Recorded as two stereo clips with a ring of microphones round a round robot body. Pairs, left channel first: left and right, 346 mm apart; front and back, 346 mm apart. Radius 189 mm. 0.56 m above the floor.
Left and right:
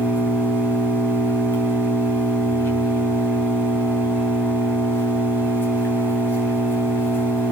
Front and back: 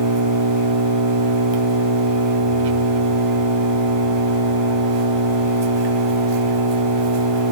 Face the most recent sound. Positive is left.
turn(degrees=175)